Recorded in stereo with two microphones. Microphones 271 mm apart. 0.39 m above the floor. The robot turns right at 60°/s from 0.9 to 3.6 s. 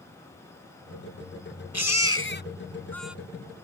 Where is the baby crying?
100° left; by 3.1 s 175° right.